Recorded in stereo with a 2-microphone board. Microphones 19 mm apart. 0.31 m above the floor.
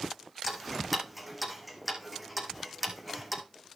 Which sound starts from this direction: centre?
Ticking, at 0.5 s.